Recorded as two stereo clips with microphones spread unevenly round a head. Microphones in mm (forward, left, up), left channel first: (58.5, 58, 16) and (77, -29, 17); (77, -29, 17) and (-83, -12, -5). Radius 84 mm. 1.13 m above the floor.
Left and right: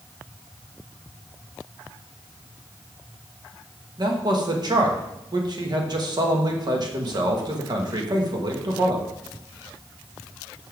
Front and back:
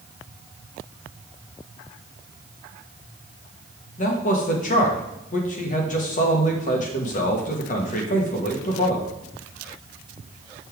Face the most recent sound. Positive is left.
turn(degrees=-45)